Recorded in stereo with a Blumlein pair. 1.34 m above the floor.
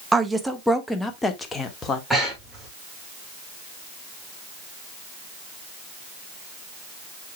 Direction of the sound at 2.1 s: 5° right.